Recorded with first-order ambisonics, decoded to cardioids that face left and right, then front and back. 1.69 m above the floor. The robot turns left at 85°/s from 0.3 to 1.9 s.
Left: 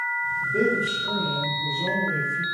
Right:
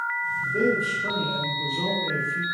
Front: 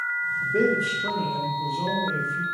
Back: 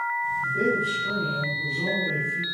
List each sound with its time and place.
0.4 s a man speaking: 25° left, 1.9 m; by 2.4 s 100° right, 1.9 m